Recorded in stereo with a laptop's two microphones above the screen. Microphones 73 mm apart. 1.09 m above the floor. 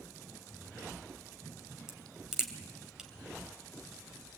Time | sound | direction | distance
1.9 | a crack | 10° right (ahead or behind) | 3 m